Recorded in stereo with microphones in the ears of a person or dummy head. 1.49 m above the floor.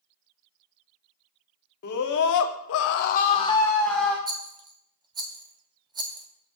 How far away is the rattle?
About 0.5 m.